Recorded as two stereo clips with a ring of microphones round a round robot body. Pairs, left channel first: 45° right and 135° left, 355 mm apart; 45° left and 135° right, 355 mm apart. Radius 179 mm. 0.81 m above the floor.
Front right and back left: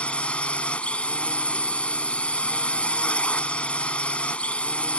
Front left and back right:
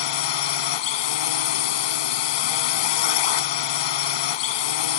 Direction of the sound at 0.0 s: 40° left.